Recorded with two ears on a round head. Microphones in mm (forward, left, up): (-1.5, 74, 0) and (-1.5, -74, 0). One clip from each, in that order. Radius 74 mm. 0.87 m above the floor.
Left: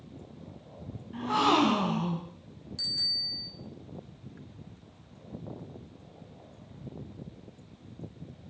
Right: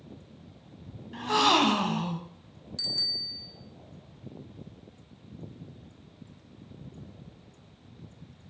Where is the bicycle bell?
20° right (ahead or behind), 2.5 m.